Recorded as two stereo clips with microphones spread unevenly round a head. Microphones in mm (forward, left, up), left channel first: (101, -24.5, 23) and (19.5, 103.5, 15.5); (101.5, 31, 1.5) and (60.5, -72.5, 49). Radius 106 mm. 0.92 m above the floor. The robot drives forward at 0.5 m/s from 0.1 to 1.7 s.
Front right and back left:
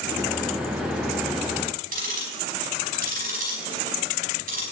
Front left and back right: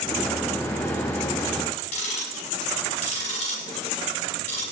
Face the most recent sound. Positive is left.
turn(degrees=100)